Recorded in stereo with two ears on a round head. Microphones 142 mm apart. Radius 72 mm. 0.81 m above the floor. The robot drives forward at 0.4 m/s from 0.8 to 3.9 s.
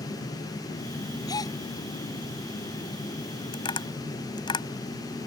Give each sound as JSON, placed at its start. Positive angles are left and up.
{"t": 1.3, "sound": "a gasp", "side_deg": 25}
{"t": 3.5, "sound": "tapping", "side_deg": 35}